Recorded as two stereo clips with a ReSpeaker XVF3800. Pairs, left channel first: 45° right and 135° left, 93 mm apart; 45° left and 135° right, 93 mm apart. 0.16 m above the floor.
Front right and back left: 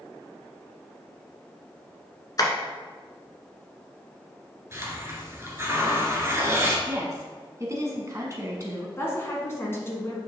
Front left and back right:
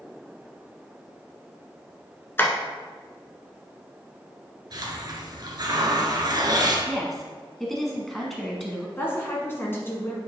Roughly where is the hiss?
Behind.